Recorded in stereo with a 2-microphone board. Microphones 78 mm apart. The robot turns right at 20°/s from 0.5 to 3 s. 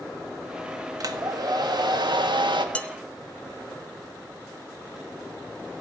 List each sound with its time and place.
1.0 s a hair dryer: 125° right, 1.5 m; by 2.6 s 95° right, 1.5 m
2.8 s dishes clattering: 15° left (ahead or behind), 1.1 m; by 2.9 s 20° left (ahead or behind), 1.1 m